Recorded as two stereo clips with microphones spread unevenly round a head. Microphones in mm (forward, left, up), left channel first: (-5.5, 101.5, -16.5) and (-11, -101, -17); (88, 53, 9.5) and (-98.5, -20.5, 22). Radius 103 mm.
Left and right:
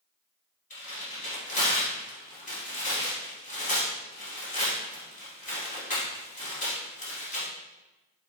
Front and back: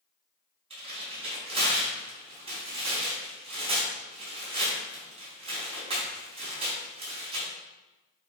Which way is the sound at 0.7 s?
140° left.